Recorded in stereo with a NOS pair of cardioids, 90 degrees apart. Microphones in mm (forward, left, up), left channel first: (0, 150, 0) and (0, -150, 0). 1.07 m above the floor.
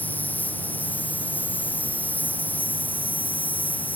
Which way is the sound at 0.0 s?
5° left.